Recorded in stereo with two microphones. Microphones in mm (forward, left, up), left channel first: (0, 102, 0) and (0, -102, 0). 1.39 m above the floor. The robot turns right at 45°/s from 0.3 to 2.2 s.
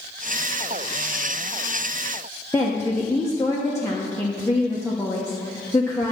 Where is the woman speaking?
15° left (ahead or behind), 1.0 m.